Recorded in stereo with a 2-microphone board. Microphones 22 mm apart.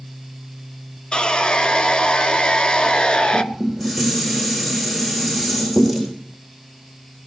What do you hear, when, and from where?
1.1 s sawing: 50° left (ahead or behind), 0.7 m
3.3 s dishes clattering: 5° left (ahead or behind), 6 m